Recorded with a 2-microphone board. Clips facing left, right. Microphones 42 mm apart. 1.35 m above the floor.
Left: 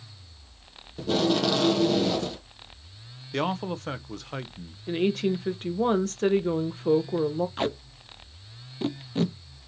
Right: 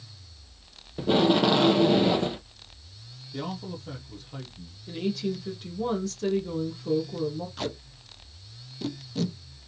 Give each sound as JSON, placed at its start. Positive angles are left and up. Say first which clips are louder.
{"t": 1.0, "sound": "tape being pulled", "louder": "right 3 dB", "side_deg": -20, "distance_m": 0.6}
{"t": 3.3, "sound": "a man speaking", "louder": "left 7 dB", "side_deg": 80, "distance_m": 0.6}
{"t": 4.9, "sound": "a woman speaking", "louder": "left 5 dB", "side_deg": 45, "distance_m": 0.9}
{"t": 7.6, "sound": "tape being pulled", "louder": "left 5 dB", "side_deg": 30, "distance_m": 0.7}